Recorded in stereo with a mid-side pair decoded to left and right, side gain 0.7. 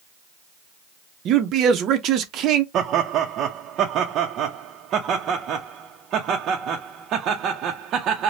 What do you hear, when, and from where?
1.2 s a man speaking: 50° right, 0.6 m
2.7 s laughter: 45° right, 0.5 m